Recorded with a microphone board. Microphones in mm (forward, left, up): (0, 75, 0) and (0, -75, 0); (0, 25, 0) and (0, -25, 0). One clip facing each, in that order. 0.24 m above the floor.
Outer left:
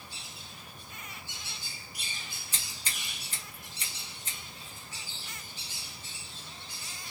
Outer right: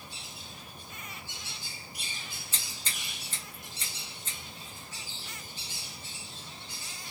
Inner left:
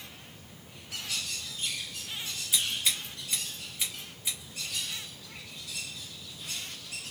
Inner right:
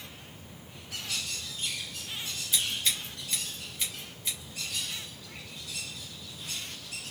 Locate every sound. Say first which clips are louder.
2.5 s scissors: outer left 1 dB, even; 10° left (ahead or behind), 1.6 m